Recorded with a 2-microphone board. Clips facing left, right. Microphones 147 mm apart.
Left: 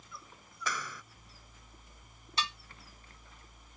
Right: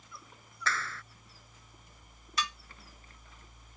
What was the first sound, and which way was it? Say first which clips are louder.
A clap: right 2 dB; 15° left (ahead or behind).